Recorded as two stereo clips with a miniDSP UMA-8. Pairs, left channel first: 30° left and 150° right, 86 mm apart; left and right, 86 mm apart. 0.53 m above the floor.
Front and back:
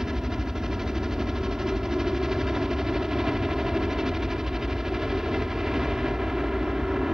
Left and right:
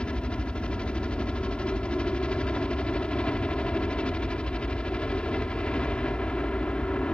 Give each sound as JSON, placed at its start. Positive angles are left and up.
{"t": 0.0, "sound": "a helicopter", "azimuth_deg": 135}